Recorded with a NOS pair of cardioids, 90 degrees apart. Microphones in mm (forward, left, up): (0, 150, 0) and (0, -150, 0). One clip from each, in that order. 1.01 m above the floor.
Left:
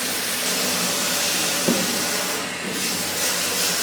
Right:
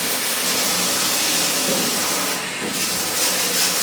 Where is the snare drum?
30° left, 0.7 m.